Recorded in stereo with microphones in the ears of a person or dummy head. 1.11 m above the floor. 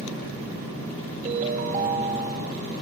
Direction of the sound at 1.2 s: 40° right (ahead or behind).